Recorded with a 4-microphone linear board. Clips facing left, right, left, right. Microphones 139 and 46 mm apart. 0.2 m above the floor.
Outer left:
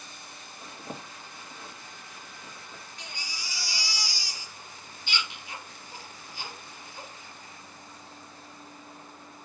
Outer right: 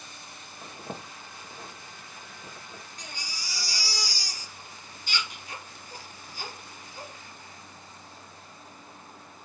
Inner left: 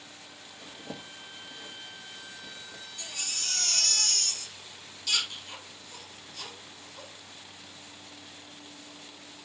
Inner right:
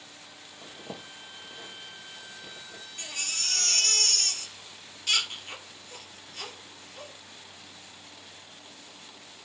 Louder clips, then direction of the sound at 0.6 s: Outer right 1 dB, inner right 1 dB; 20° right (ahead or behind).